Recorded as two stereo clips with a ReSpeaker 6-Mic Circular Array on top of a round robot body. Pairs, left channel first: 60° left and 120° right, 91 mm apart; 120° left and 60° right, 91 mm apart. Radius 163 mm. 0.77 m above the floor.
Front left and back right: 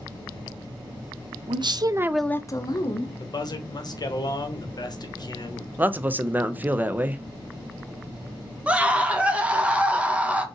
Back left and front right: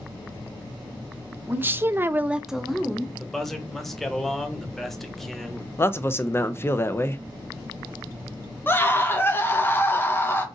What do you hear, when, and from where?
1.5 s a woman speaking: 125° right, 0.8 m; by 3.1 s 35° left, 1.0 m
3.2 s a man speaking: 35° left, 0.9 m
5.8 s a man speaking: 175° left, 0.5 m
8.7 s a scream: 170° left, 0.9 m